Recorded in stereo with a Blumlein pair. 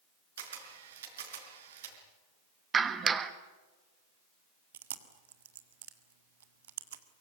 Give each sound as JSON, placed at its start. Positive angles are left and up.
{"t": 0.4, "sound": "a camera shutter", "azimuth_deg": -60, "distance_m": 5.0}
{"t": 2.7, "sound": "a clap", "azimuth_deg": -20, "distance_m": 1.4}
{"t": 4.7, "sound": "chewing", "azimuth_deg": -60, "distance_m": 1.7}